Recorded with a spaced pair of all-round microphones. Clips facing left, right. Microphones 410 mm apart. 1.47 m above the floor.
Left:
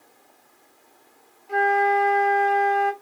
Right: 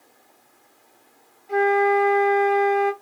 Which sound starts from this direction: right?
A flute, at 1.5 s.